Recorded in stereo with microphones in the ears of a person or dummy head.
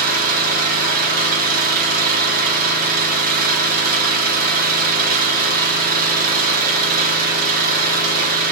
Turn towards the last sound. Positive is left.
turn(degrees=-55)  # may be behind; listen again after turning